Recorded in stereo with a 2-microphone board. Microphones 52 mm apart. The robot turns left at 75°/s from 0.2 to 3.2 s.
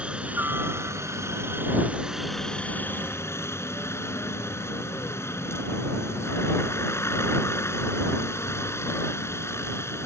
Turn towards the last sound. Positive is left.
turn(degrees=110)